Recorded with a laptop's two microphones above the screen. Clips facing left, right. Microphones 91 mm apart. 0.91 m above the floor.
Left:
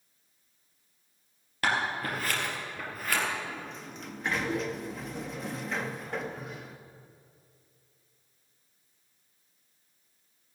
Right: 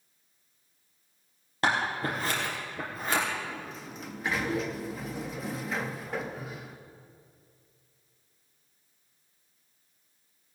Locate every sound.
1.6 s scissors: 25° right (ahead or behind), 3.5 m
3.4 s a sliding door: centre (ahead or behind), 0.5 m